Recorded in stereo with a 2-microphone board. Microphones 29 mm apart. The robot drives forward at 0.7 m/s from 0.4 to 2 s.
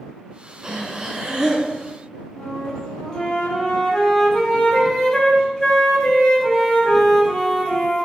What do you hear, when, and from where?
0.6 s breathing: 25° right (ahead or behind), 1.4 m; by 1.7 s 15° right (ahead or behind), 2 m
2.4 s a flute: 20° left (ahead or behind), 1.8 m